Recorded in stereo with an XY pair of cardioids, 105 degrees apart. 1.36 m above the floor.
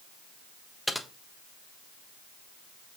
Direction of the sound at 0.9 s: Straight ahead.